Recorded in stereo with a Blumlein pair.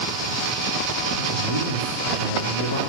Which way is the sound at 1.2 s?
65° left.